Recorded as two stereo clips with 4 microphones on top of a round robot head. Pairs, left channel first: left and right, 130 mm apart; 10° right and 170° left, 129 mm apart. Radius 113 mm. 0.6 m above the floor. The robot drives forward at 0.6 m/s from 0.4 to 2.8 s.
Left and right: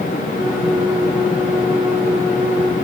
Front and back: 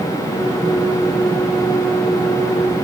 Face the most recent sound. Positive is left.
No sound to turn to.